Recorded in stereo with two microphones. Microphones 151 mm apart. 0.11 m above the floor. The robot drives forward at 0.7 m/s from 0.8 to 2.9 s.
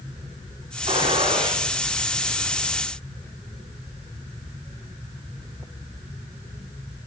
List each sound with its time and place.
0.9 s a gunshot: 45° right (ahead or behind), 5 m; by 1.6 s 40° right (ahead or behind), 5.5 m